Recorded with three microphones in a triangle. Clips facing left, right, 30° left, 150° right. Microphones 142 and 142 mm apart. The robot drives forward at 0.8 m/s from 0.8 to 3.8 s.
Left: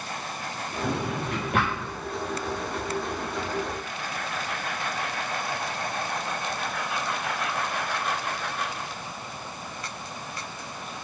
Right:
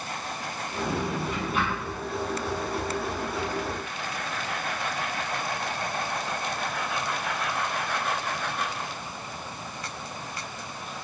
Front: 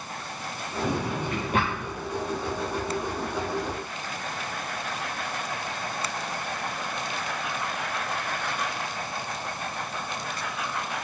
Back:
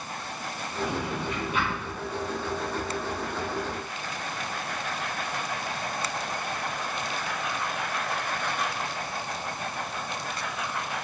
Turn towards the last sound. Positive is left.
turn(degrees=75)